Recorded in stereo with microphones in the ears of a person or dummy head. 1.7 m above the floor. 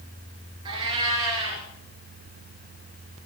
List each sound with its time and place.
0.7 s a cat meowing: 20° right (ahead or behind), 2.5 m